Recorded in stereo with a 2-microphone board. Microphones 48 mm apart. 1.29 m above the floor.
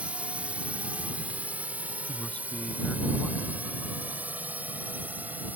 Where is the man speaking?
25° left (ahead or behind).